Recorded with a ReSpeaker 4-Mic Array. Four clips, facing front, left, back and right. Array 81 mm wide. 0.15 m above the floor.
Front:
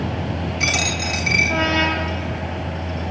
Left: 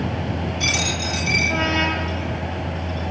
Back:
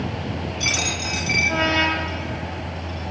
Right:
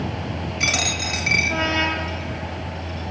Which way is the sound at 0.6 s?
45° right.